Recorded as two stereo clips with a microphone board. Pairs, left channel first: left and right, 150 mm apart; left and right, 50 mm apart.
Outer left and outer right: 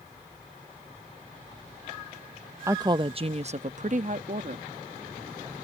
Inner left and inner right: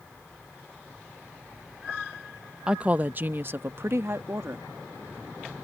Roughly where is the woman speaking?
Centre.